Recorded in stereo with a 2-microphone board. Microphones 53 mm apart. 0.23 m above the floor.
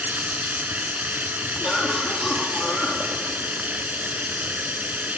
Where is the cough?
5° right (ahead or behind), 7.5 m.